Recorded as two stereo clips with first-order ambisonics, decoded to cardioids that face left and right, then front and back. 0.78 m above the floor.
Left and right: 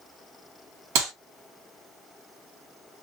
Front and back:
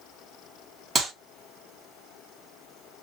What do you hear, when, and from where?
0.9 s a clap: 100° right, 1.8 m